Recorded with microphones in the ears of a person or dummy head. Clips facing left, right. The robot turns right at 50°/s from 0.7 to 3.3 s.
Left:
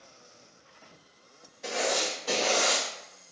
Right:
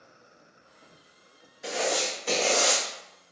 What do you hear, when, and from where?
1.6 s writing: 175° right, 1.3 m; by 2.8 s 115° right, 1.3 m